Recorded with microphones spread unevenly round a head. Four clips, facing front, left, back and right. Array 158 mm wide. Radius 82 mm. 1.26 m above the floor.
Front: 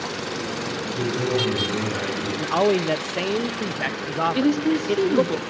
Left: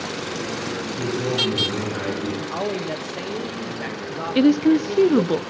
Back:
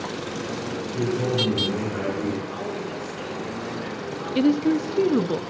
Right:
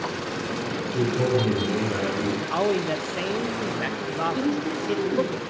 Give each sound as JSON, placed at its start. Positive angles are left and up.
{"t": 0.9, "sound": "a man speaking", "azimuth_deg": -105, "distance_m": 4.5}
{"t": 2.4, "sound": "a man speaking", "azimuth_deg": -5, "distance_m": 0.6}
{"t": 4.3, "sound": "a woman speaking", "azimuth_deg": 85, "distance_m": 0.7}